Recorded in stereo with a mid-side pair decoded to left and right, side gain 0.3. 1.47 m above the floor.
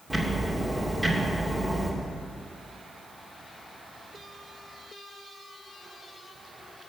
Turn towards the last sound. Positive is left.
turn(degrees=-25)